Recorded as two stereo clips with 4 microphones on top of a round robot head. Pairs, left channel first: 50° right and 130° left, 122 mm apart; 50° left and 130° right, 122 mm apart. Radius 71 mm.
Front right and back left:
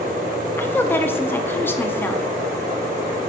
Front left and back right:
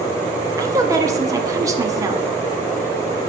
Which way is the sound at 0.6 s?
105° right.